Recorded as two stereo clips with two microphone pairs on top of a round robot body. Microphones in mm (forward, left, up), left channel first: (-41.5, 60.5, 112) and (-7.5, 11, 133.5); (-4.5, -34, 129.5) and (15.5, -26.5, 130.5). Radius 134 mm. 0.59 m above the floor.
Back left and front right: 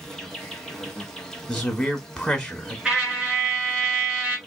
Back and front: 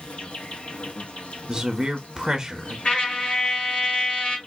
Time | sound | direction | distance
0.0 | an insect | 165° right | 1.1 m
1.5 | a man speaking | 65° left | 1.2 m
2.9 | a trumpet | 145° right | 1.8 m